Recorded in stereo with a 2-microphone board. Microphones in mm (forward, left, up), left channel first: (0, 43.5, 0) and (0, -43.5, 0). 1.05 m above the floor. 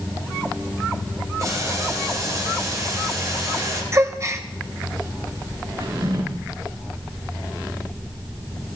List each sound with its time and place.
1.4 s boiling: 40° right (ahead or behind), 3.5 m
3.9 s a gasp: 35° right (ahead or behind), 0.9 m
5.8 s a drawer: 90° right, 8.5 m